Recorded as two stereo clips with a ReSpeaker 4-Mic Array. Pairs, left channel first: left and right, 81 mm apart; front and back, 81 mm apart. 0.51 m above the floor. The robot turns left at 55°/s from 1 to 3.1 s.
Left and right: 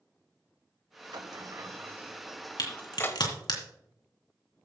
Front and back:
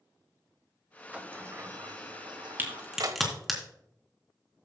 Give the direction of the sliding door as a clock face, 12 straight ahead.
4 o'clock.